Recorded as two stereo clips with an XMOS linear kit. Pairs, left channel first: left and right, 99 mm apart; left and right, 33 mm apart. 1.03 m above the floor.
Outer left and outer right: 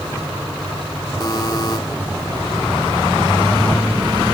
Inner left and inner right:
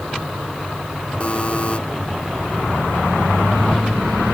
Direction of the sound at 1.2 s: 45° left (ahead or behind).